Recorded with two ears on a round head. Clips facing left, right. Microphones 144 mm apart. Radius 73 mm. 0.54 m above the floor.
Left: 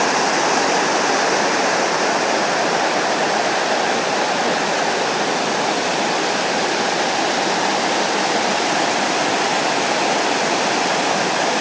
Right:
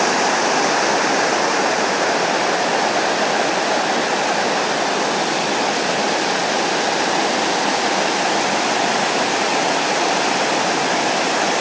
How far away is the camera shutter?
No camera shutter in this recording.